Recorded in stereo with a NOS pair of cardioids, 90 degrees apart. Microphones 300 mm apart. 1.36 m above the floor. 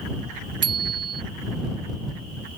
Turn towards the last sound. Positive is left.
turn(degrees=-55)